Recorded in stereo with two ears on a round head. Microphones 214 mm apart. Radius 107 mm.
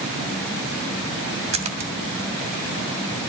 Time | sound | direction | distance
1.5 | a splash | 30° right (ahead or behind) | 2 m